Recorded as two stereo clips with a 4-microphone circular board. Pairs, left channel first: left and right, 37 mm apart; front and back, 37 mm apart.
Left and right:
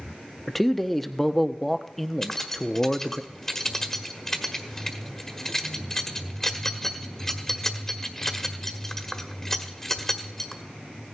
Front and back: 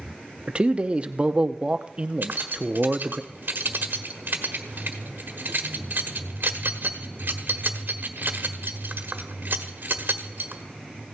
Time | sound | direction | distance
0.5 | a man speaking | 165° left | 0.8 m
2.2 | keys jangling | 160° left | 1.4 m